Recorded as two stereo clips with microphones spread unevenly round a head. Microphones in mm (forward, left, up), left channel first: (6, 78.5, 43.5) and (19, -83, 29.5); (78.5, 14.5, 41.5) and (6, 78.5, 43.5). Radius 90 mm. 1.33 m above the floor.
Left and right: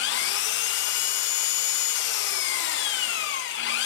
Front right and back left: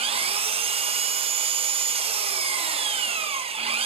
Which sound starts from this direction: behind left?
An engine running, at 0.0 s.